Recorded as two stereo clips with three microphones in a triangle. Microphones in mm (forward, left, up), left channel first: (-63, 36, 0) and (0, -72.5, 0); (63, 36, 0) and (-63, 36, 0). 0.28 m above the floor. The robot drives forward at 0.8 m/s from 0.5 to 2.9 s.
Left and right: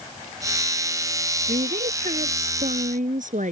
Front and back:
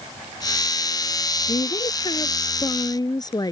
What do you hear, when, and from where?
1.5 s a woman speaking: 50° right; by 3.5 s 60° right